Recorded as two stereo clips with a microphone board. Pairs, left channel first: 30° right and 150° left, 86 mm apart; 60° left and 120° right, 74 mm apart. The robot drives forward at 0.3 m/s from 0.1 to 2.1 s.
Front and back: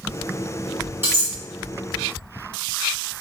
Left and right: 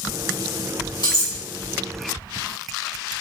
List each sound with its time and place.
1.0 s cutlery clinking: 85° left, 1.6 m; by 1.3 s 90° left, 1.6 m